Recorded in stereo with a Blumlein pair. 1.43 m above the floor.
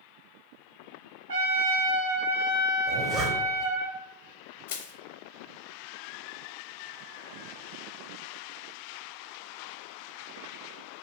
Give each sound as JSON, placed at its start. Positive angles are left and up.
{"t": 1.3, "sound": "a trumpet", "azimuth_deg": -65, "distance_m": 1.0}
{"t": 2.9, "sound": "a zipper", "azimuth_deg": -25, "distance_m": 0.7}
{"t": 4.7, "sound": "crushing", "azimuth_deg": 55, "distance_m": 0.5}